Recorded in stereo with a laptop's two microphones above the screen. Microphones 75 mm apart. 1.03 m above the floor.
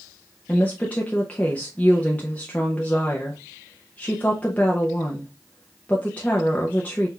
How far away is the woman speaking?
About 0.5 m.